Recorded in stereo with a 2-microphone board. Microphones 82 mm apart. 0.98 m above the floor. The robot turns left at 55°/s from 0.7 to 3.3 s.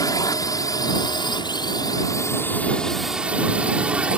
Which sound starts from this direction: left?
A drone, at 0.0 s.